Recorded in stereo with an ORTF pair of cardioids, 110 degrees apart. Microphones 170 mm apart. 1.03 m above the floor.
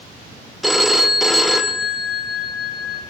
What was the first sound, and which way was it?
A phone ringing, straight ahead.